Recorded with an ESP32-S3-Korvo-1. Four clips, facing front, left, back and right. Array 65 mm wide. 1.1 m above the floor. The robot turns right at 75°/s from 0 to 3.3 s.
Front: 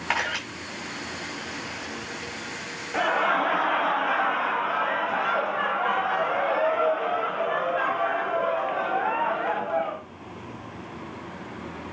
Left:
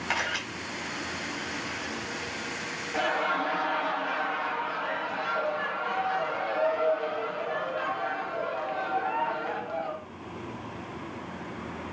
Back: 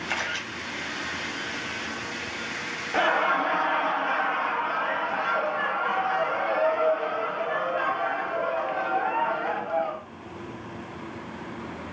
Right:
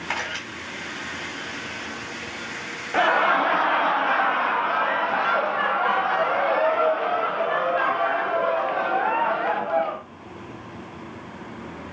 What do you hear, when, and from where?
0.1 s a camera shutter: straight ahead, 4.5 m; by 0.4 s 25° left, 4.5 m
2.9 s laughter: 105° right, 0.6 m; by 10.0 s 80° right, 0.6 m